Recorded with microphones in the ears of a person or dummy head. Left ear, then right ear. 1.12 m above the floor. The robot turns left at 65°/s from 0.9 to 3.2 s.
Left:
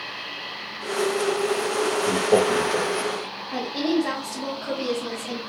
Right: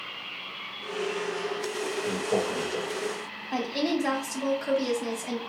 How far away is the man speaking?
About 0.5 m.